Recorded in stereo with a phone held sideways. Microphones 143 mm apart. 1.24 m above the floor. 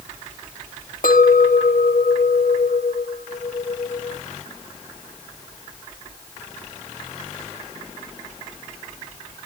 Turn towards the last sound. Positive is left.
turn(degrees=80)